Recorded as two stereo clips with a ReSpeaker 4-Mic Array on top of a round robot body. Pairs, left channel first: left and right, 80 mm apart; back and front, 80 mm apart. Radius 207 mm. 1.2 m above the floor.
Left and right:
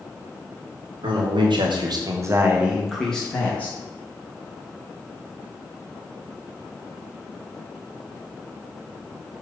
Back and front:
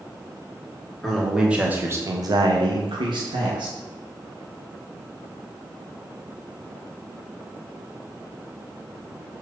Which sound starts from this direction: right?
A man speaking, at 1.0 s.